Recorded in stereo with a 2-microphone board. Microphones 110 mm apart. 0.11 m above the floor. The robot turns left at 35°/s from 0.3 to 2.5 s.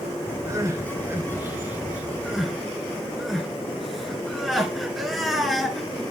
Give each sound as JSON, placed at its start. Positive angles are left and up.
{"t": 0.5, "sound": "crying", "side_deg": -30, "distance_m": 1.6}